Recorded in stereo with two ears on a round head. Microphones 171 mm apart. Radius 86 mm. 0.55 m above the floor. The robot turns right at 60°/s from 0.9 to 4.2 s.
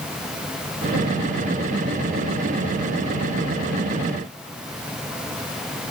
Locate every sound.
Only background noise.